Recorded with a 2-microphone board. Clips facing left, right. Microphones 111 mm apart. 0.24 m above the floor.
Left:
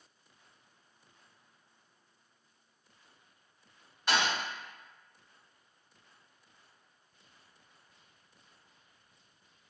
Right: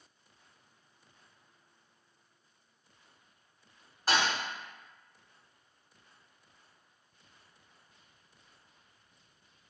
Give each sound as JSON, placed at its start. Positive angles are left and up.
{"t": 4.1, "sound": "a thud", "side_deg": -40, "distance_m": 1.1}